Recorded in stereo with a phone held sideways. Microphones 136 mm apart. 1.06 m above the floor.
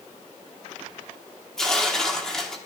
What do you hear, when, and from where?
1.6 s tearing paper: 5° left (ahead or behind), 1.6 m